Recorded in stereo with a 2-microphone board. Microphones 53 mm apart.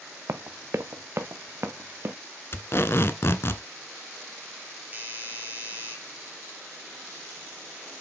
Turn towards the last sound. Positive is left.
turn(degrees=-30)  # may be behind; listen again after turning